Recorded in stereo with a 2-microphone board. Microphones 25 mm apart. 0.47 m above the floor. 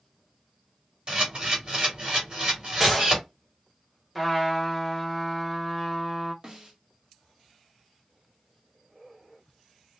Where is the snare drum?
25° right (ahead or behind), 1.1 m.